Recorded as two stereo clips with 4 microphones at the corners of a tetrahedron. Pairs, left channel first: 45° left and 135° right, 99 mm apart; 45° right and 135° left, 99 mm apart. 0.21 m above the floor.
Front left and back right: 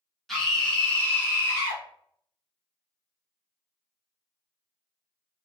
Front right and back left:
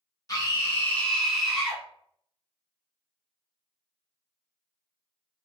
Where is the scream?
40° right, 1.4 m; by 1.8 s 80° left, 1.3 m.